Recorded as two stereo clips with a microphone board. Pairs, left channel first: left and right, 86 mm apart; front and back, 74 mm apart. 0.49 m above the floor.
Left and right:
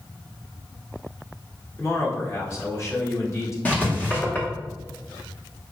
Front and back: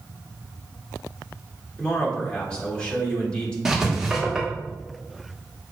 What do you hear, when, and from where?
1.8 s a man speaking: 70° left, 1.3 m
3.6 s writing: 115° left, 1.2 m